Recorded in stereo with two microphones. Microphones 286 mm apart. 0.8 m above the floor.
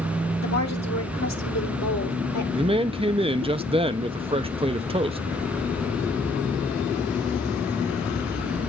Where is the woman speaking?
65° left (ahead or behind), 1.9 m.